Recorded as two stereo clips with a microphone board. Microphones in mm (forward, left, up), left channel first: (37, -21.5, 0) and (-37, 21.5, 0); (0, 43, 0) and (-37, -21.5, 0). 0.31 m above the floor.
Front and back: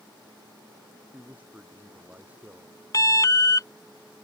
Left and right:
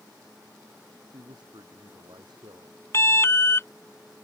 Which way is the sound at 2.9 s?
10° left.